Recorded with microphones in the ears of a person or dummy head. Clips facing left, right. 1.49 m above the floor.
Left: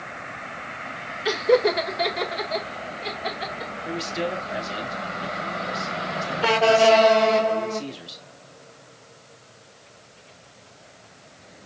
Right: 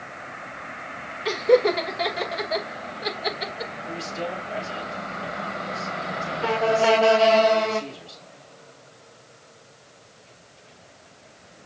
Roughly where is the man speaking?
Left.